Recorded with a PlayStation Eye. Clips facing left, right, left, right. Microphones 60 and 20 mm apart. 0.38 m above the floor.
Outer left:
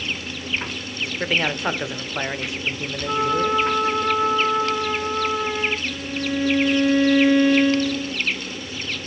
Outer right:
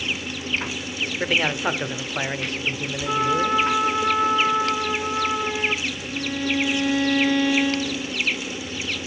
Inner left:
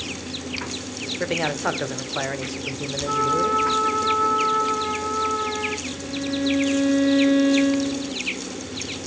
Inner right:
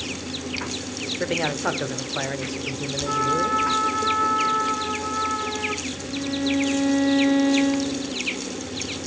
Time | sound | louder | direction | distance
1.2 | a man speaking | even, inner left 1 dB | centre (ahead or behind) | 0.9 m
3.0 | a trumpet | even, inner left 1 dB | 15° right (ahead or behind) | 7.5 m
5.8 | a violin | outer left 2 dB, inner left 1 dB | 15° left (ahead or behind) | 1.3 m